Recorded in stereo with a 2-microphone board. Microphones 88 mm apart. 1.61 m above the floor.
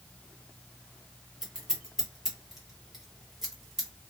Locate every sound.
1.4 s scissors: 5° right (ahead or behind), 1.3 m